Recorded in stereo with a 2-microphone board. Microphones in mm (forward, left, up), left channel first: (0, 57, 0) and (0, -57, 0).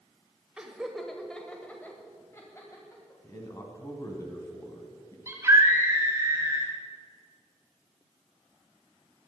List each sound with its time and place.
0.6 s laughter: 5° right (ahead or behind), 1.3 m; by 3.2 s 30° left (ahead or behind), 2 m
3.2 s a man speaking: 30° left (ahead or behind), 2.5 m
5.3 s a scream: 25° right (ahead or behind), 1.8 m